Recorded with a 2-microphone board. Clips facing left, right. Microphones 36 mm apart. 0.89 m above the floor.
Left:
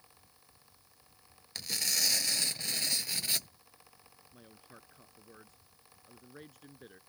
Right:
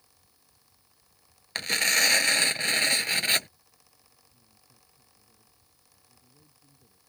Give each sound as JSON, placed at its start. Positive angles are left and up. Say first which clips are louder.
{"t": 1.6, "sound": "tearing paper", "louder": "right 11 dB", "side_deg": -50}
{"t": 4.3, "sound": "a man speaking", "louder": "left 8 dB", "side_deg": 75}